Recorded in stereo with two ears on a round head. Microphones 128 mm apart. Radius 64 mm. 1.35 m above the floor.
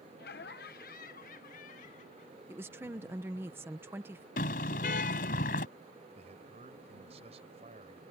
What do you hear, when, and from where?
0.2 s laughter: 75° left (ahead or behind); by 2.4 s 55° left (ahead or behind)
2.5 s a woman speaking: 15° right (ahead or behind)
4.4 s a car horn: 70° left (ahead or behind)
6.2 s a man speaking: 45° right (ahead or behind)